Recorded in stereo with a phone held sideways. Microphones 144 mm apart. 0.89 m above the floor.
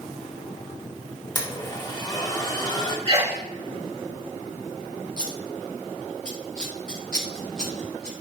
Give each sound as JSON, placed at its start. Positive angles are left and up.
{"t": 1.4, "sound": "a blender", "side_deg": 30, "distance_m": 1.8}
{"t": 3.1, "sound": "a sneeze", "side_deg": -50, "distance_m": 3.5}
{"t": 5.2, "sound": "scissors", "side_deg": 5, "distance_m": 3.0}